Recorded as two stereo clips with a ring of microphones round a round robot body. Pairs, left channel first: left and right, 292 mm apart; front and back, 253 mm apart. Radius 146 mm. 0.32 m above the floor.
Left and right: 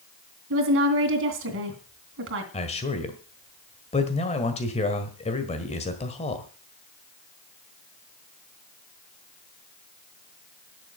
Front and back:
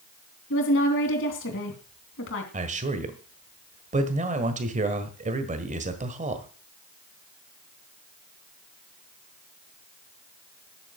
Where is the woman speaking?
45° right, 3 m.